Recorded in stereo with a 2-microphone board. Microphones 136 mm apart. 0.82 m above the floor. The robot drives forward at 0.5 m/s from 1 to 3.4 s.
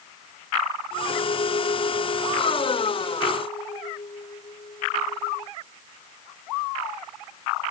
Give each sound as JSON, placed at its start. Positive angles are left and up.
{"t": 1.1, "sound": "a clink", "side_deg": 50}